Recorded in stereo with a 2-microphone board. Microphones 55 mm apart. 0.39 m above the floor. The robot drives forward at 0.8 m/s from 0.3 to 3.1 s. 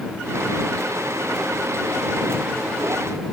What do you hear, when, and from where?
Only background noise.